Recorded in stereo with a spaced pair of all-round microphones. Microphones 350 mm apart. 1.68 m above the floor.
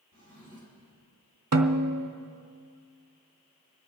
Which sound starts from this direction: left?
A drawer, at 0.1 s.